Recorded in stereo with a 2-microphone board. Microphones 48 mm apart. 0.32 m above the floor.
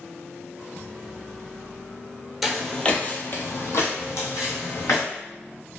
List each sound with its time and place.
2.4 s footsteps: 5° right (ahead or behind), 0.5 m; by 5.0 s 80° left, 1.3 m